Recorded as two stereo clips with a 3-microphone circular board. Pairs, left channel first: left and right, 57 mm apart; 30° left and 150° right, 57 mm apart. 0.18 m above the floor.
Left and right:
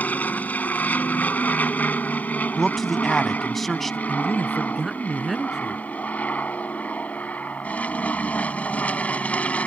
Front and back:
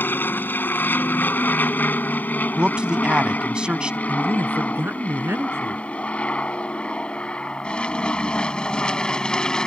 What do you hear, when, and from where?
0.0 s an aircraft: 50° left; by 9.7 s 90° left
2.6 s a man speaking: 170° left
4.1 s a man speaking: 175° right